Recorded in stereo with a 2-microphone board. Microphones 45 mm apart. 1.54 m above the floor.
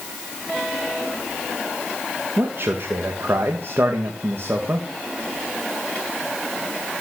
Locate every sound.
2.4 s a man speaking: 65° right (ahead or behind), 2.0 m